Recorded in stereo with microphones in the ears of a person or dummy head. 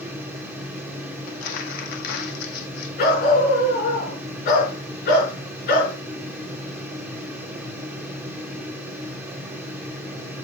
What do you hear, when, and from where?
0.0 s a fan: 5° right (ahead or behind), 2.5 m
1.3 s crumpling: 60° left (ahead or behind), 1.7 m
3.0 s a dog barking: 65° left (ahead or behind), 5 m